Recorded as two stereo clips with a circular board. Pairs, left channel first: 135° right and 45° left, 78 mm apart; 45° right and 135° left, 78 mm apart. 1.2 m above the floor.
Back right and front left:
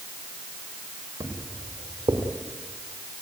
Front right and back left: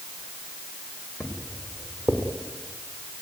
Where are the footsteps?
55° left, 5 m; by 2.2 s 65° left, 5 m.